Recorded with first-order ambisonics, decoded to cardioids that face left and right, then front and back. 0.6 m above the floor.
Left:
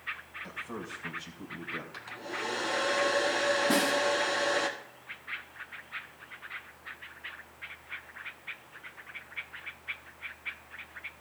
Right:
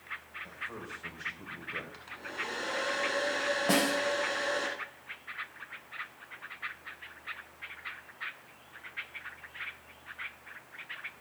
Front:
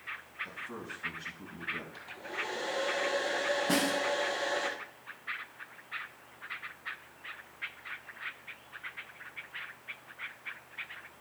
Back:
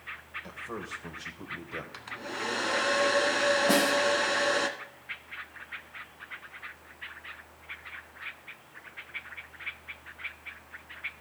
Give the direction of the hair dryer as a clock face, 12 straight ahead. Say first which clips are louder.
Left 1 dB, back 2 dB; 6 o'clock.